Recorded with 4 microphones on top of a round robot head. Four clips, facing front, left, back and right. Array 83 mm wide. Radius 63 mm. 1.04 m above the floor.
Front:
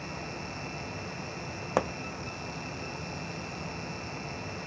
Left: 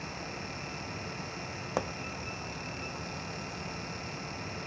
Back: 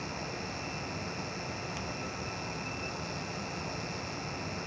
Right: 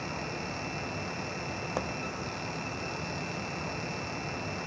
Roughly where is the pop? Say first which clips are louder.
Left 2 dB, front 11 dB; ahead.